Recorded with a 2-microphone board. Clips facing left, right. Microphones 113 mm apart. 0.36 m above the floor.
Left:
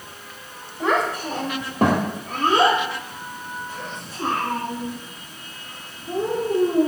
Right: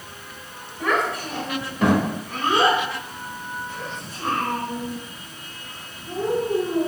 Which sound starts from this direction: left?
A child speaking, at 0.8 s.